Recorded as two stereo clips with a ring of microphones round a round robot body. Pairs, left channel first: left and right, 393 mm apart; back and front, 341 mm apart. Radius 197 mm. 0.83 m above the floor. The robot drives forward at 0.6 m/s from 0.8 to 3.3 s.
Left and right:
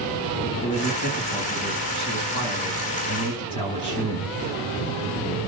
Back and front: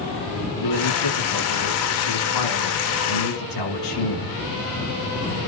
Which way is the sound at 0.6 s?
165° left.